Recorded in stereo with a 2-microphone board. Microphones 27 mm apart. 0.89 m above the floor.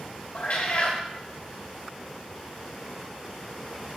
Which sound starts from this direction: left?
A cat meowing, at 0.3 s.